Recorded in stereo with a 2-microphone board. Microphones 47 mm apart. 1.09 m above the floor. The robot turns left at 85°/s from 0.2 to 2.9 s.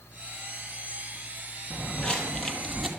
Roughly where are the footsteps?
Centre.